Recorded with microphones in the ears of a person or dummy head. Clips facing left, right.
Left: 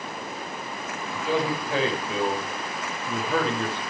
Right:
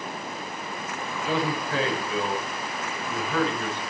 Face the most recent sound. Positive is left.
turn(degrees=30)  # may be behind; listen again after turning